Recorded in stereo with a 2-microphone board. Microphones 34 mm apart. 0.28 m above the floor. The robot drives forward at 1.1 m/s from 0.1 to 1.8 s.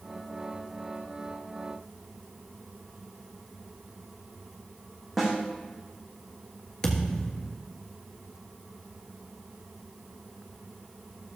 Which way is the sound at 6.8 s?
20° left (ahead or behind).